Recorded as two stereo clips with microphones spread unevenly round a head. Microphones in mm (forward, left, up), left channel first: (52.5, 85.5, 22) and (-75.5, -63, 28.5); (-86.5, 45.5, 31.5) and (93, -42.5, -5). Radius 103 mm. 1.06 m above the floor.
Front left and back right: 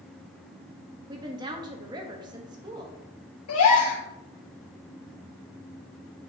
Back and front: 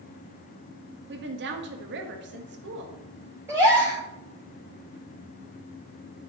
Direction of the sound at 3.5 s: 55° left.